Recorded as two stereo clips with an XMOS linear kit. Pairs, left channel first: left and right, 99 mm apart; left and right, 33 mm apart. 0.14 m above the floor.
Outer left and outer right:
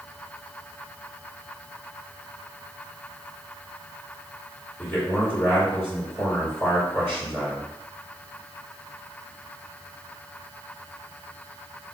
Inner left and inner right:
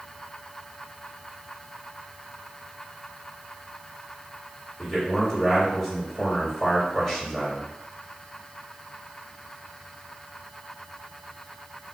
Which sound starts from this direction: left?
A man speaking, at 4.8 s.